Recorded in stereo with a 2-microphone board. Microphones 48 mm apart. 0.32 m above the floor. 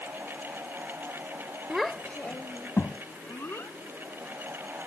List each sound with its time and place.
1.7 s a child speaking: 10° right (ahead or behind); by 3.8 s 60° left (ahead or behind)